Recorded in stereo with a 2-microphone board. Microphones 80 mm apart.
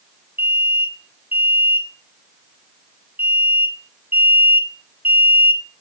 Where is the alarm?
25° right (ahead or behind), 3 m.